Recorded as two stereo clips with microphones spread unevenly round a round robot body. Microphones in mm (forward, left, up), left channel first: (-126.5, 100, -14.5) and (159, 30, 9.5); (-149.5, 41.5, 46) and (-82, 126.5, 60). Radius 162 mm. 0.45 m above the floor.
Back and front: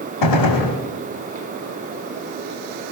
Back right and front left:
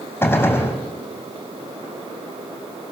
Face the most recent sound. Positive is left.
turn(degrees=160)